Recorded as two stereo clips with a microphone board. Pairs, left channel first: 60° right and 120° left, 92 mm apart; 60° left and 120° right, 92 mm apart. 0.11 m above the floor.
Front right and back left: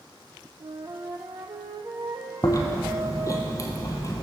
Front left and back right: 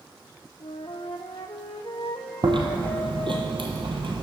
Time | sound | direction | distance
0.6 | a flute | 80° left | 0.7 m
2.4 | chewing | 110° right | 1.3 m